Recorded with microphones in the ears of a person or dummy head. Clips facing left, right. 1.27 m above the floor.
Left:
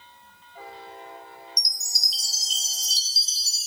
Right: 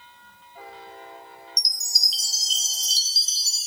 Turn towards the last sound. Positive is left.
turn(degrees=-60)  # may be behind; listen again after turning